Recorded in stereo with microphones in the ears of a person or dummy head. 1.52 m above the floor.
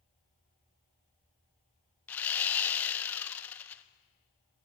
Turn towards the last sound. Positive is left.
turn(degrees=10)  # may be behind; listen again after turning